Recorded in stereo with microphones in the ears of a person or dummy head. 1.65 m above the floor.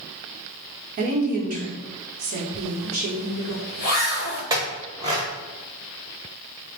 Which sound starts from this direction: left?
A zipper, at 2.5 s.